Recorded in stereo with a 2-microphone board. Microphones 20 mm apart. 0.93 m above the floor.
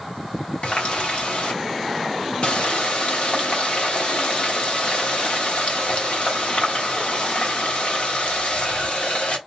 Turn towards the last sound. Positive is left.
turn(degrees=60)  # may be behind; listen again after turning